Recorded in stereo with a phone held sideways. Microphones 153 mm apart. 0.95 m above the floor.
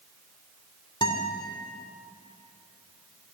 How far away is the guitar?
About 2 m.